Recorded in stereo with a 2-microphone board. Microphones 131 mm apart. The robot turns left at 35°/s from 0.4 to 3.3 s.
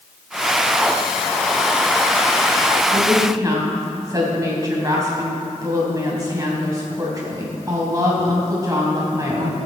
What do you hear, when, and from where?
2.9 s a woman speaking: 40° right (ahead or behind), 3 m; by 9.6 s 25° right (ahead or behind), 3 m